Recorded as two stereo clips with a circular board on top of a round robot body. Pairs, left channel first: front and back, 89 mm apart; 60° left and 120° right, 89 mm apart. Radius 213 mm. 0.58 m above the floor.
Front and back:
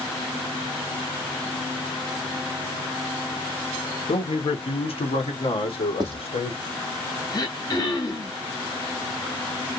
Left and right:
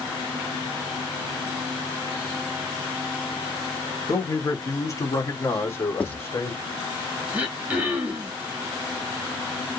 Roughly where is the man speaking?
Ahead.